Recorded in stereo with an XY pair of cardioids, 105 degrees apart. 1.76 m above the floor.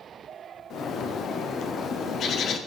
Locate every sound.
0.7 s a bird: 60° left, 1.1 m